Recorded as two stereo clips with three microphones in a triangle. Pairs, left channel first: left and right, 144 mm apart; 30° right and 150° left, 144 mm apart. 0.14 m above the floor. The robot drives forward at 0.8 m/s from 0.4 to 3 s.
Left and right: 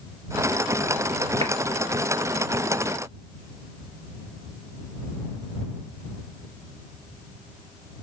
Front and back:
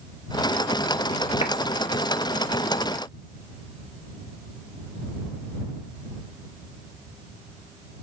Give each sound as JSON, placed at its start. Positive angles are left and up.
{"t": 1.4, "sound": "a clap", "azimuth_deg": -60, "distance_m": 2.0}